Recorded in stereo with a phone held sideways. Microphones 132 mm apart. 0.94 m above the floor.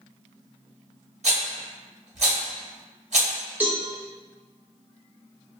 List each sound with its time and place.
1.2 s a rattle: 60° right (ahead or behind), 1.0 m
3.6 s a cowbell: 10° right (ahead or behind), 0.9 m